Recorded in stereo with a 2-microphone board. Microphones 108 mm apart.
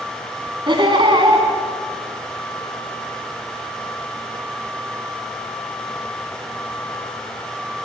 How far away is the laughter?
About 2.5 m.